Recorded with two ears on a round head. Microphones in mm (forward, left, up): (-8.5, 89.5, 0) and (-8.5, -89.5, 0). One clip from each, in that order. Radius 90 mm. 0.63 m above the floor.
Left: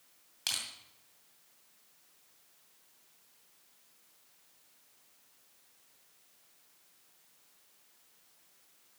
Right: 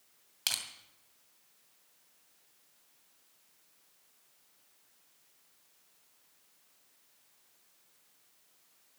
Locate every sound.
0.5 s crushing: 25° right (ahead or behind), 2.5 m